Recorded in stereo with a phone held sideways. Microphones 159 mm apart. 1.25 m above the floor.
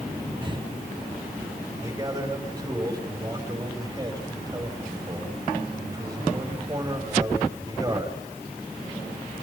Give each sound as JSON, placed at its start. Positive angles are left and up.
{"t": 0.4, "sound": "breathing", "side_deg": -30, "distance_m": 1.2}
{"t": 1.8, "sound": "a man speaking", "side_deg": -20, "distance_m": 6.0}